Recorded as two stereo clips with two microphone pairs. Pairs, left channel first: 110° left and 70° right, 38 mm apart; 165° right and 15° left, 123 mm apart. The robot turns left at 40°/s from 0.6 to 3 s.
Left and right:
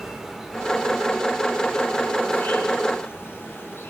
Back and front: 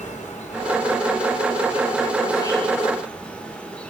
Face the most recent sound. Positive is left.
turn(degrees=115)